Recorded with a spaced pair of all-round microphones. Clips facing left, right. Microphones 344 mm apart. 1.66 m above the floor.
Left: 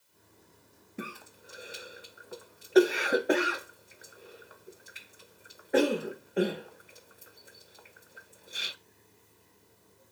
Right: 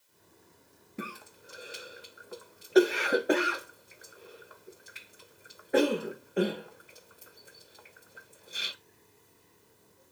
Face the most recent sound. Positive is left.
turn(degrees=0)  # may be behind; listen again after turning